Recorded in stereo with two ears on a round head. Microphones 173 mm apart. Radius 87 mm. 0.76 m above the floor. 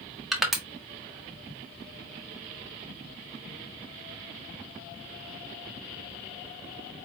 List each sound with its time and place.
0.3 s crushing: centre (ahead or behind), 1.4 m